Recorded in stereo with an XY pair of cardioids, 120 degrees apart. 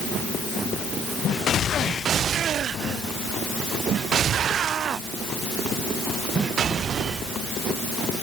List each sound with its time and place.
Only background noise.